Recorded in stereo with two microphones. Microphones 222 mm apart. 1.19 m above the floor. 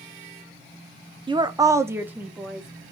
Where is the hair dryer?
I don't hear a hair dryer.